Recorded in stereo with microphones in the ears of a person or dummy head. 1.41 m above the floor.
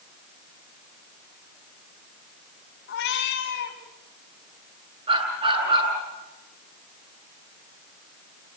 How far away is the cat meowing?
About 3.5 m.